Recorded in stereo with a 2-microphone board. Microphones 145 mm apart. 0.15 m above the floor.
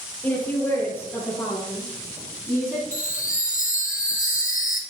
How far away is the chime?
About 2 m.